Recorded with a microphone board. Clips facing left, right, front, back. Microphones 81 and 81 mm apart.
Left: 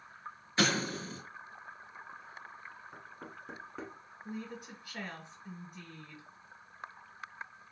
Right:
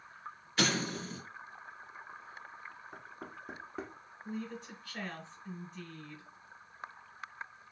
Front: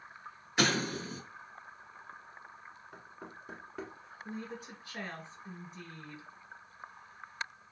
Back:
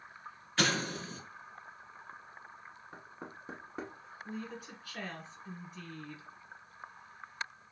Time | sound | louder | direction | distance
0.6 | an explosion | left 2 dB, front 2 dB | 60° left | 1.5 m
2.9 | knocking | right 1 dB, back 2 dB | 165° right | 1.0 m
4.2 | a woman speaking | right 2 dB, even | 30° left | 1.3 m